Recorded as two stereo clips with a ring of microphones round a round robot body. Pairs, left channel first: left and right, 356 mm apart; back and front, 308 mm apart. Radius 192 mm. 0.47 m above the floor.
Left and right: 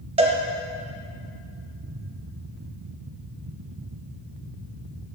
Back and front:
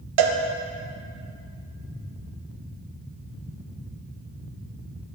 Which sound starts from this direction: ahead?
A cowbell, at 0.2 s.